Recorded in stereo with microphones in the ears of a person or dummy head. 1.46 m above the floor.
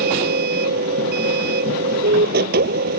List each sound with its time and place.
0.0 s a machine running: 55° right (ahead or behind)